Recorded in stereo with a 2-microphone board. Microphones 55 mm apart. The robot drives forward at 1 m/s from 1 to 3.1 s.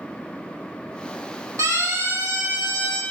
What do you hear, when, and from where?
1.6 s a siren: 75° right (ahead or behind), 8 m; by 3.0 s 60° right (ahead or behind), 7.5 m